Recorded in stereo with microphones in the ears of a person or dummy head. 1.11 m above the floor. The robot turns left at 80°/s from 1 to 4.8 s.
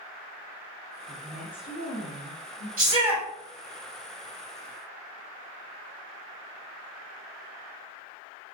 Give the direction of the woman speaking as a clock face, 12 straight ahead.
5 o'clock.